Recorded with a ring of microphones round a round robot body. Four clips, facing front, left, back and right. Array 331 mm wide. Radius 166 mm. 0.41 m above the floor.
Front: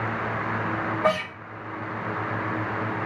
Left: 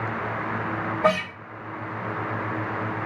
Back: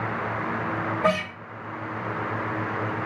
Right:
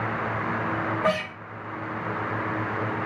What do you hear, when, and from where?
1.0 s a guitar: 130° left, 1.8 m